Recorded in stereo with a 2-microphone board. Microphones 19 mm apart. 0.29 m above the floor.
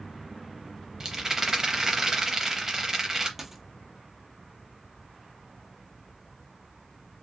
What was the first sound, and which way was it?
A rattle, 25° right (ahead or behind).